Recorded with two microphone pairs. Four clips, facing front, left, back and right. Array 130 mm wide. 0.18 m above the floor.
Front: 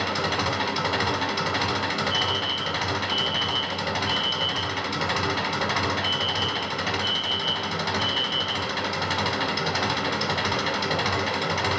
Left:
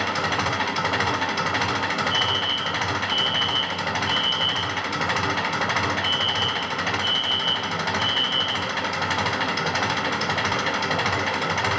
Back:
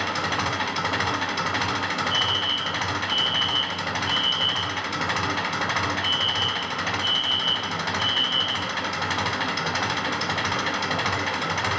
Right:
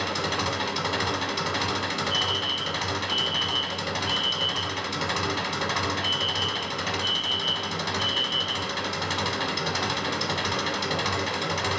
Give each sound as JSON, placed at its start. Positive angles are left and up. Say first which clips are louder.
{"t": 0.0, "sound": "an engine running", "louder": "left 4 dB, even", "azimuth_deg": 110, "distance_m": 0.7}
{"t": 2.1, "sound": "a fire alarm", "louder": "left 4 dB, even", "azimuth_deg": 175, "distance_m": 4.0}